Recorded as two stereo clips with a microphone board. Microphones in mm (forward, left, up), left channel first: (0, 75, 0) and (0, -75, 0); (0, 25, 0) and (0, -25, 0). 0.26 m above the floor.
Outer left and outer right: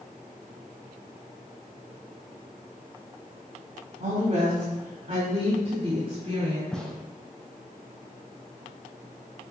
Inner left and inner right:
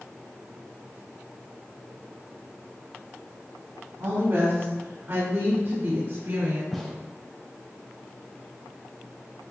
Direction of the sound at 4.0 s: 60° right (ahead or behind).